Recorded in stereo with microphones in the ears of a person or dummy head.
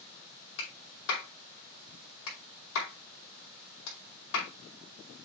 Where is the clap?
80° left, 5 m.